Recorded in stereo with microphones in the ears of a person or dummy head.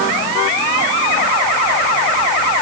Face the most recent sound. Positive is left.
No sound to turn to.